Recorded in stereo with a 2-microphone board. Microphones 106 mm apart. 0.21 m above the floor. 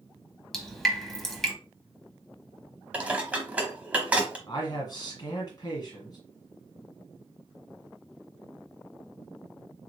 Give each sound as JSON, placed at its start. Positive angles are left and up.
{"t": 0.5, "sound": "dripping", "side_deg": 5, "distance_m": 0.7}
{"t": 2.9, "sound": "dishes clattering", "side_deg": -15, "distance_m": 0.8}
{"t": 4.5, "sound": "a man speaking", "side_deg": 40, "distance_m": 1.5}